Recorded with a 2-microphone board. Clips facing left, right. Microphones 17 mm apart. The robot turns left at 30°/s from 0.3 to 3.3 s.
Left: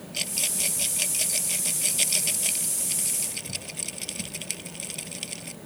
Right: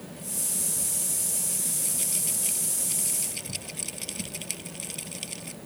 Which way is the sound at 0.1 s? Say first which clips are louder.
Left 7 dB; 85° left.